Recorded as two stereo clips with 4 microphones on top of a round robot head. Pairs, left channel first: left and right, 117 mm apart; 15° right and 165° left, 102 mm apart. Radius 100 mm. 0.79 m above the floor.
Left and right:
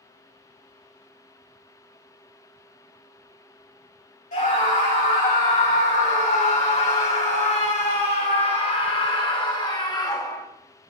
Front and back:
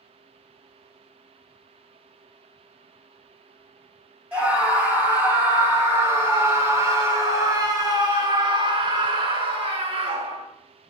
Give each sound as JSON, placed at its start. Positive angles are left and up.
{"t": 4.3, "sound": "a scream", "azimuth_deg": 90, "distance_m": 6.0}